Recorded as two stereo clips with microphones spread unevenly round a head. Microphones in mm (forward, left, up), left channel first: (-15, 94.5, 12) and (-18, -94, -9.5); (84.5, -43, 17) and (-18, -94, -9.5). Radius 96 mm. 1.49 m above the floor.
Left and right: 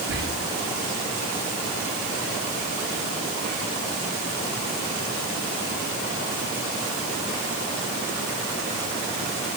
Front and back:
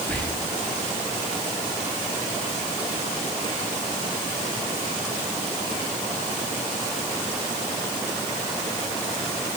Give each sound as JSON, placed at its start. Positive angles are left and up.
{"t": 0.1, "sound": "whispering", "azimuth_deg": -50, "distance_m": 0.8}